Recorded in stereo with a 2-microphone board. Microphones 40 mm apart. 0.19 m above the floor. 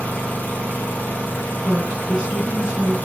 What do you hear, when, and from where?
0.0 s an engine running: 45° left (ahead or behind), 1.7 m
1.6 s a woman speaking: 20° right (ahead or behind), 2 m